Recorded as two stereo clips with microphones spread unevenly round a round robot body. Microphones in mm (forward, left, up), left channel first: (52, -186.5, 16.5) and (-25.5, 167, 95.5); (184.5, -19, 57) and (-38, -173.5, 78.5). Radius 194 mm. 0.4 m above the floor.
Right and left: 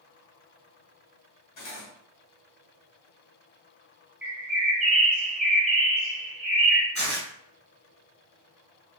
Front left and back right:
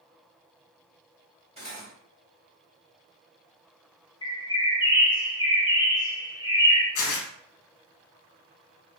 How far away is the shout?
I don't hear a shout.